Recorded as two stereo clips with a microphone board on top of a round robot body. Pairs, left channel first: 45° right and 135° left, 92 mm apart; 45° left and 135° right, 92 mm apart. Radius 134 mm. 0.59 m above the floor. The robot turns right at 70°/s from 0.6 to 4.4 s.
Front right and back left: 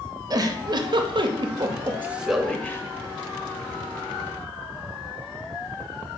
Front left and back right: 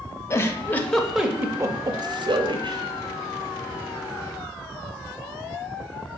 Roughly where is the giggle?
Left.